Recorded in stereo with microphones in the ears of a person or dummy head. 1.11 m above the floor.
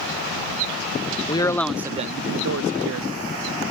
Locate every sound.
1.3 s a man speaking: 25° left (ahead or behind); by 3.1 s 70° right (ahead or behind)